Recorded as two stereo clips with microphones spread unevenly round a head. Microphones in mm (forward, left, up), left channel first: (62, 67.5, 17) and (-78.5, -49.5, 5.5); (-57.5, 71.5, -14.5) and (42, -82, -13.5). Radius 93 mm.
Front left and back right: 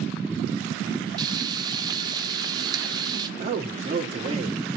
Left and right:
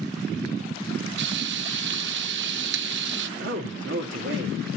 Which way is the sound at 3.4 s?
80° right.